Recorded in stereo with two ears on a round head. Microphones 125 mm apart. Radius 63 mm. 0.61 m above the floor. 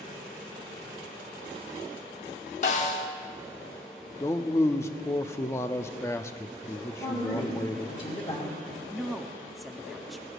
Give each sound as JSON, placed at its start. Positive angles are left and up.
{"t": 2.6, "sound": "a snare drum", "side_deg": 55, "distance_m": 1.5}
{"t": 4.2, "sound": "a man speaking", "side_deg": 20, "distance_m": 0.6}
{"t": 6.9, "sound": "a woman speaking", "side_deg": 30, "distance_m": 2.0}
{"t": 8.9, "sound": "a woman speaking", "side_deg": 0, "distance_m": 0.6}